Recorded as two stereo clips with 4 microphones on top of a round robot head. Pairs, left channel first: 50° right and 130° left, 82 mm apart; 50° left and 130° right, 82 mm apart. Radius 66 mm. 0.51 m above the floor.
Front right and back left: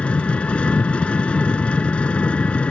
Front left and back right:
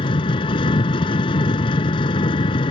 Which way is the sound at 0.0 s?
25° left.